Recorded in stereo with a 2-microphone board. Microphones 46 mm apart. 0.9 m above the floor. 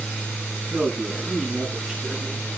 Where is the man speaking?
5° right (ahead or behind), 9.5 m.